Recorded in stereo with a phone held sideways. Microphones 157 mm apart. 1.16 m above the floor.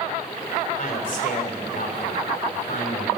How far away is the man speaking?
About 3.5 m.